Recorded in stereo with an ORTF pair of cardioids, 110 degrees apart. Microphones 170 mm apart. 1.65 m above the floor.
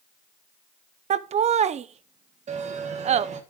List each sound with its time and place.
1.1 s laughter: 40° right, 0.6 m
2.5 s a bell: 45° right, 1.4 m